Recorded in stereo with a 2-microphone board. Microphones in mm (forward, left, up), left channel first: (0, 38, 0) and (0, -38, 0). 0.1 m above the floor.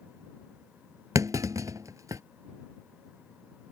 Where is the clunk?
50° right (ahead or behind).